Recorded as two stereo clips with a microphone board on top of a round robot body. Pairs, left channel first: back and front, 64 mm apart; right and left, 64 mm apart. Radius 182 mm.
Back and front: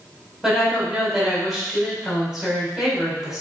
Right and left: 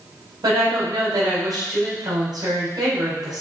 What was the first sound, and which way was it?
A woman speaking, 85° left.